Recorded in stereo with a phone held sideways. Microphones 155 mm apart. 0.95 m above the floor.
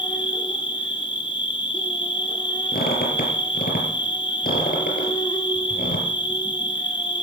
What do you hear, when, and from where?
0.0 s an insect: 30° left (ahead or behind), 1.3 m
2.7 s a squeak: 75° left (ahead or behind), 4 m